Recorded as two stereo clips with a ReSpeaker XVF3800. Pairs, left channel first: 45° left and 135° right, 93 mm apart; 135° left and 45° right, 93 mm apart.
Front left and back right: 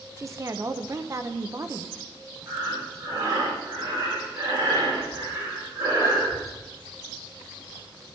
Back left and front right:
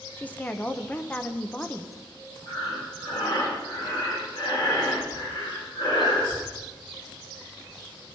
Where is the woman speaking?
165° right, 0.8 m.